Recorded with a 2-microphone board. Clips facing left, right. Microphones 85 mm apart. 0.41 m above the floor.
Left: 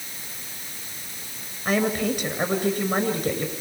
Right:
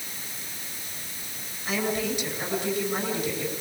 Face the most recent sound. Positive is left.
turn(degrees=45)  # may be behind; listen again after turning